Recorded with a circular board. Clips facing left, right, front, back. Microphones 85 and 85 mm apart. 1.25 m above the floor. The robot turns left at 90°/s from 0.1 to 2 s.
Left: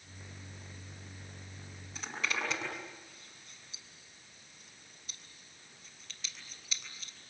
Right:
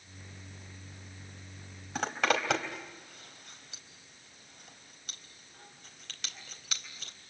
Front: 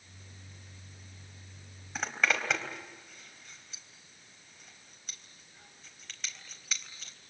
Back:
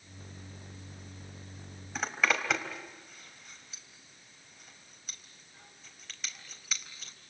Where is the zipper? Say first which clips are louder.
Right 8 dB, back 1 dB; 90° right, 3.5 m.